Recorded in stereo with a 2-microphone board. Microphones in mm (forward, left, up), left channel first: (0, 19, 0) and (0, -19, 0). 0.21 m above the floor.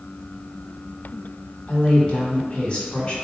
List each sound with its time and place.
1.7 s a woman speaking: 30° left (ahead or behind), 1.3 m